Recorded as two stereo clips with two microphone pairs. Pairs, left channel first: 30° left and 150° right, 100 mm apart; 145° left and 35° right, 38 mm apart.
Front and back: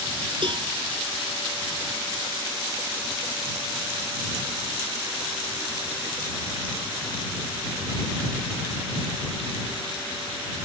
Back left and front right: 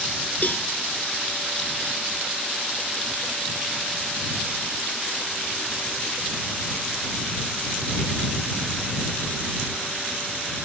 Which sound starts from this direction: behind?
A cowbell, at 0.4 s.